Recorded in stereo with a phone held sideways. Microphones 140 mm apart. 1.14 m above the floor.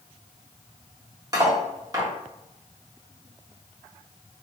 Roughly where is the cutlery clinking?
Right.